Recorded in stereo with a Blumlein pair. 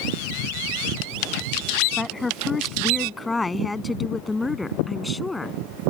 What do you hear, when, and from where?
2.0 s a woman speaking: 10° left; by 5.6 s 5° left